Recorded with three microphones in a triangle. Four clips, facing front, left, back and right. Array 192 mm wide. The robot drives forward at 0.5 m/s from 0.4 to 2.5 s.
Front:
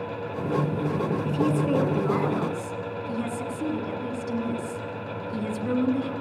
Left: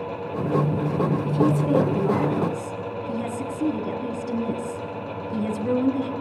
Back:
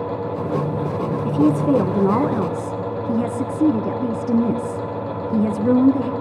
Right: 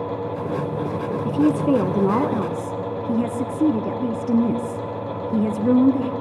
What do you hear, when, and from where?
1.2 s a woman speaking: 120° right, 1.3 m; by 6.1 s 145° right, 1.7 m